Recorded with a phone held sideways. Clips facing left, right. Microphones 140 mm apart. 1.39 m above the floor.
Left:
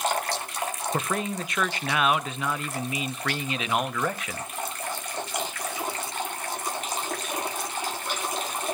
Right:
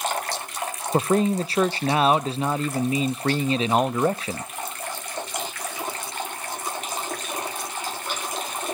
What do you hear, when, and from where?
0.9 s a man speaking: 30° right (ahead or behind), 0.5 m